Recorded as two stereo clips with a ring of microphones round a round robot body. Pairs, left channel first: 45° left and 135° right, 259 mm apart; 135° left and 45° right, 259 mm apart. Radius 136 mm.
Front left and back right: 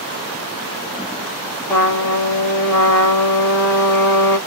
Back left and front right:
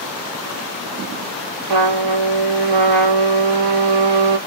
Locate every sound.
1.7 s a trumpet: 35° right, 1.1 m